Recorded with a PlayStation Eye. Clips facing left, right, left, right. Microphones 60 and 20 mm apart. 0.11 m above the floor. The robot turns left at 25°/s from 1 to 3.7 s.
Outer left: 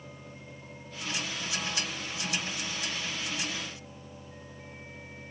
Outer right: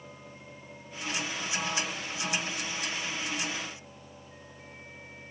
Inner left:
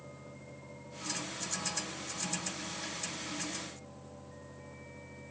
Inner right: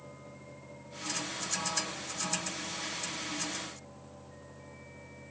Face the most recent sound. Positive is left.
No sound to turn to.